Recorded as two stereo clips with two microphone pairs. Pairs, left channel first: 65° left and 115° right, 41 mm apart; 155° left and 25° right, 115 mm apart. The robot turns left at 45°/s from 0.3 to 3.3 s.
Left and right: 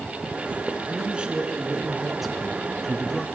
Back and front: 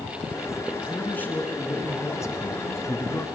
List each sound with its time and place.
0.9 s a man speaking: 135° right, 1.3 m; by 3.2 s 120° left, 1.3 m